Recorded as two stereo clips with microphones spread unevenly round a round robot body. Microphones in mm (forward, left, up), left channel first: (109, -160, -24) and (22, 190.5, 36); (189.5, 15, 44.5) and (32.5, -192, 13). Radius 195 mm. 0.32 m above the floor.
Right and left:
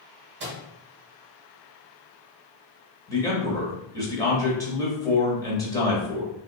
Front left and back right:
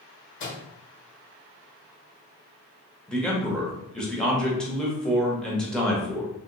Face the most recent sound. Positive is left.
turn(degrees=-50)